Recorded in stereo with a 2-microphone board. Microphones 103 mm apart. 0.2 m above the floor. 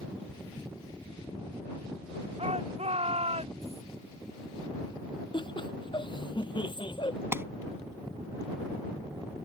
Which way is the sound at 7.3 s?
25° right (ahead or behind).